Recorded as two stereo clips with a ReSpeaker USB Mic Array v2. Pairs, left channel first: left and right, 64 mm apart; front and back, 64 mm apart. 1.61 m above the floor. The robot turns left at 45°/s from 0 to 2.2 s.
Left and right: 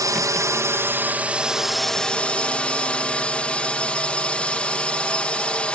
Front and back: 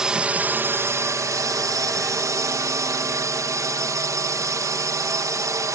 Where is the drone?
100° right; by 5.8 s 160° left.